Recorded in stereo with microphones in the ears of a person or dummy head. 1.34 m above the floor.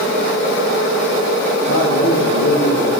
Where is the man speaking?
70° left (ahead or behind), 1.1 m; by 2.9 s 65° left (ahead or behind), 1.9 m.